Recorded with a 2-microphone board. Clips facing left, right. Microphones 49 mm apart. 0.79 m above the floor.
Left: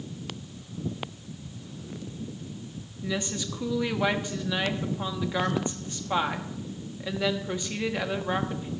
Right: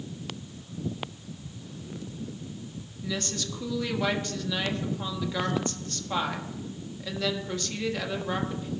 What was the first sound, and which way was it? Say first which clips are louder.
A woman speaking: left 2 dB; 20° left (ahead or behind).